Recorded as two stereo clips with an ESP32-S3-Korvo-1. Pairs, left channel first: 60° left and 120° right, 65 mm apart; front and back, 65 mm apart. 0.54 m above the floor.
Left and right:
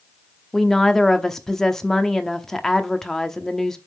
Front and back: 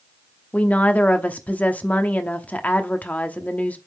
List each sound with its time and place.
0.5 s a woman speaking: 15° right, 0.8 m